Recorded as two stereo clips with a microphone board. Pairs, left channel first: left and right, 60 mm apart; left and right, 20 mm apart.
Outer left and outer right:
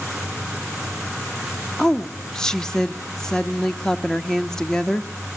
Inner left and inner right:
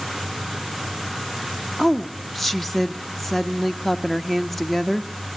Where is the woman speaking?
10° left (ahead or behind), 0.8 m.